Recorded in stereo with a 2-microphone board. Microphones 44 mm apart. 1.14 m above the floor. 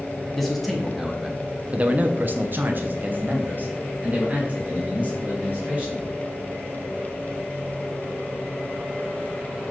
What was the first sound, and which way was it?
A man speaking, 5° left (ahead or behind).